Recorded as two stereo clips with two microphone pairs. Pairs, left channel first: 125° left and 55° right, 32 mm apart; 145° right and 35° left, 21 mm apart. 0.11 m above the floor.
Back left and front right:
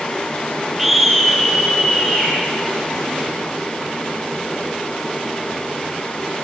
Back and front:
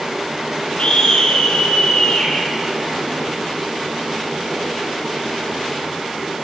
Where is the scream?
140° right, 2.5 m; by 2.3 s 150° right, 3.5 m.